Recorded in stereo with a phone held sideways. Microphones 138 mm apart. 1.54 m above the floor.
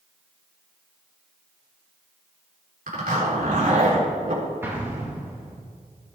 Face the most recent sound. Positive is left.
turn(degrees=-15)  # may be behind; listen again after turning